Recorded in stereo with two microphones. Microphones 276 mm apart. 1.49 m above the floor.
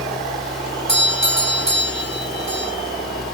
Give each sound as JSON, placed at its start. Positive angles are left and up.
{"t": 0.9, "sound": "a doorbell", "side_deg": 35, "distance_m": 2.0}